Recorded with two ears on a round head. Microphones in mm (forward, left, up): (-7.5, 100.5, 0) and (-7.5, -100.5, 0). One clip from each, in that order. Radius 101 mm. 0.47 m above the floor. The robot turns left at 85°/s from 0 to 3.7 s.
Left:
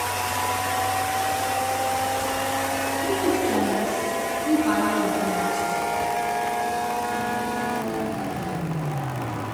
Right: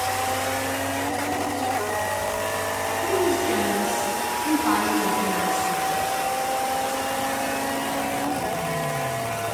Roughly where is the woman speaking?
Right.